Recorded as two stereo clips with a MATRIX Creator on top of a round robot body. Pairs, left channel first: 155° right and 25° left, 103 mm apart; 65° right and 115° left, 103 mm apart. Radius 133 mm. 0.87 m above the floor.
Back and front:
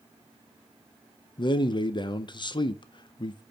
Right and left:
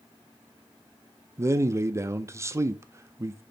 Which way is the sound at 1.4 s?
170° left.